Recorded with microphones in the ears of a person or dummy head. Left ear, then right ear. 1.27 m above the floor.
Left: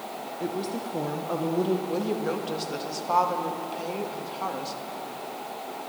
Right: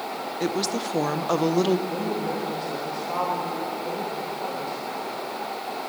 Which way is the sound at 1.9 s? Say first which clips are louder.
Right 1 dB; 65° left (ahead or behind).